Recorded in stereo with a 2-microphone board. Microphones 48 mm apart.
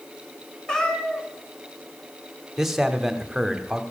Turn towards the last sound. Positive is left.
turn(degrees=-10)  # may be behind; listen again after turning